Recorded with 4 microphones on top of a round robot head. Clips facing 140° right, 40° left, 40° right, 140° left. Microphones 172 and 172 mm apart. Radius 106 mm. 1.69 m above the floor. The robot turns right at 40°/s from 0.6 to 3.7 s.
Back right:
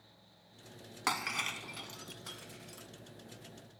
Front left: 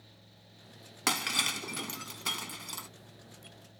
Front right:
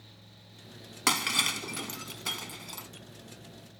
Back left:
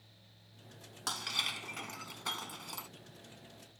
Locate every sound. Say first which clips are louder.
1.1 s breaking glass: front left 3 dB, front right 12 dB; 20° right; by 2.9 s 50° left